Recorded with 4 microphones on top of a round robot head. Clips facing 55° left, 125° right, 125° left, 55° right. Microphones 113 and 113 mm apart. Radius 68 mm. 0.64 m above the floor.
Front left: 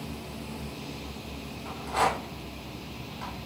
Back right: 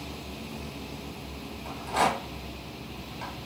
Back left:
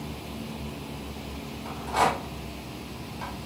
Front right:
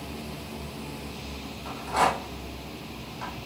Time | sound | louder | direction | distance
1.6 | a rattle | back right 1 dB, even | 160° right | 1.6 m